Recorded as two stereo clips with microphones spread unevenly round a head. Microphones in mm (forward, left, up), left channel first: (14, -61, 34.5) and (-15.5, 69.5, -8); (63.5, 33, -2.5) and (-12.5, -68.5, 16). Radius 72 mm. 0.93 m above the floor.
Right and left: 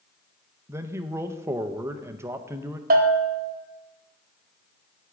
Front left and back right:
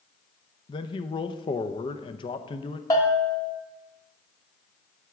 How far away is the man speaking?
About 0.6 m.